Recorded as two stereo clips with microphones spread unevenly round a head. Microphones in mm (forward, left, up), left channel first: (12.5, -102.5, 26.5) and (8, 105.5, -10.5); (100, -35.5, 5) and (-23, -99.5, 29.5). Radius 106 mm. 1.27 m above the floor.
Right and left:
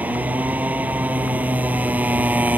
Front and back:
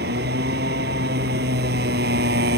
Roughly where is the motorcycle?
Behind.